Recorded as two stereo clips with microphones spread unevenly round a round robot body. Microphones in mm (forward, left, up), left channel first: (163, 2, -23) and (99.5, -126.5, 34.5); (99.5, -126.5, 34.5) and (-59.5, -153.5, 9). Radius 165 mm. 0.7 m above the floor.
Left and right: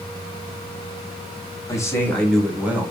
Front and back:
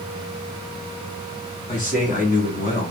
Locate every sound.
1.7 s a man speaking: 45° left, 1.3 m; by 2.9 s 25° right, 1.3 m